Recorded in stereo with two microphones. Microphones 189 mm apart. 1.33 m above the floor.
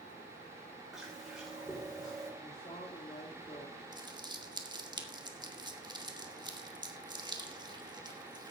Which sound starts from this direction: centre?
Chewing, at 0.9 s.